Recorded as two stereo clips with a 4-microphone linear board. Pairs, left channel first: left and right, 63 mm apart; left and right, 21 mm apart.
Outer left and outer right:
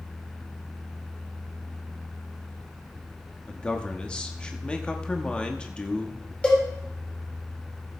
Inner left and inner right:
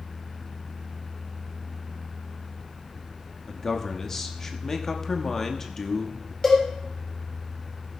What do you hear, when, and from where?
3.5 s a man speaking: 15° left (ahead or behind), 1.0 m
6.4 s a cowbell: 20° left (ahead or behind), 3 m